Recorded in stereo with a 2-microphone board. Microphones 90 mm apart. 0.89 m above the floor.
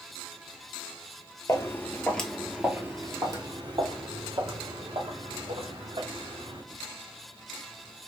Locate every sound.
1.5 s footsteps: 35° left (ahead or behind), 1.1 m; by 6.6 s 75° right (ahead or behind), 3.5 m